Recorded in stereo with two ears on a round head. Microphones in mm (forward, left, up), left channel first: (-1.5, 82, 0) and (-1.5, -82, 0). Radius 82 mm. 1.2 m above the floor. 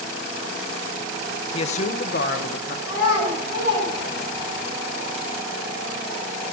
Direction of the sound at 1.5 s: 30° left (ahead or behind).